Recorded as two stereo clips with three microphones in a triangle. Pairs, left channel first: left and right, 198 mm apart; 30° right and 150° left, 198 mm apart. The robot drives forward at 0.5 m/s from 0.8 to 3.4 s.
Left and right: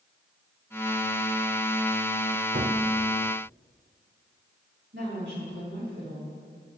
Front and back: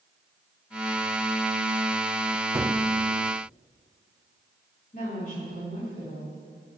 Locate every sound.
2.5 s a gunshot: 135° right, 0.6 m; by 2.8 s 140° right, 0.7 m
4.9 s a woman speaking: 75° right, 5.5 m